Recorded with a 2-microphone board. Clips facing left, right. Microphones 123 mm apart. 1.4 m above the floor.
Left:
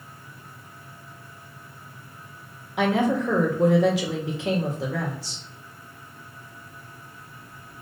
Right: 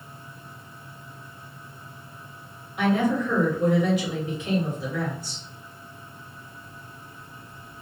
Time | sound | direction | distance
2.8 | a woman speaking | 80° left | 1.4 m